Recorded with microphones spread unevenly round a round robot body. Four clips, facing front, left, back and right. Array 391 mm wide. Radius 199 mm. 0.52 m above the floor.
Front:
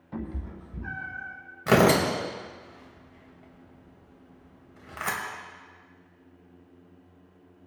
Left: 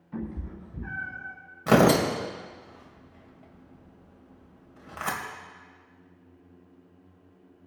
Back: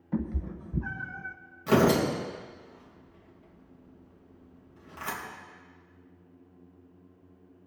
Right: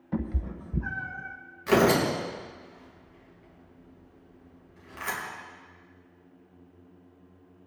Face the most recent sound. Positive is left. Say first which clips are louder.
# left 2 dB, front 2 dB
turn(degrees=50)